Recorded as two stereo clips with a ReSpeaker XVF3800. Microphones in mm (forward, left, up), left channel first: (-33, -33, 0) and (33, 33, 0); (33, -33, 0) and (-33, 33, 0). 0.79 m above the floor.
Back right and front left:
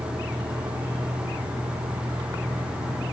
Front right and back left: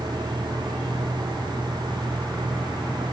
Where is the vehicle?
60° left.